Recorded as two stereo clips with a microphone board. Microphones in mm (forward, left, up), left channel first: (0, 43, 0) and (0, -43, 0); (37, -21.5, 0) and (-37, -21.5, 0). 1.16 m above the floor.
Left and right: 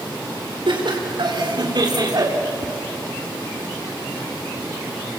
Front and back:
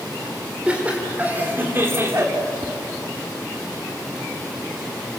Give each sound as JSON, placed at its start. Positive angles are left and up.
{"t": 0.7, "sound": "laughter", "azimuth_deg": -105, "distance_m": 4.0}
{"t": 2.6, "sound": "tapping", "azimuth_deg": -135, "distance_m": 1.4}